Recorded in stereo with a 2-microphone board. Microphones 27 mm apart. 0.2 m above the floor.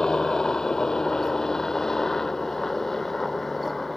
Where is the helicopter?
25° left (ahead or behind); by 4.0 s 10° left (ahead or behind).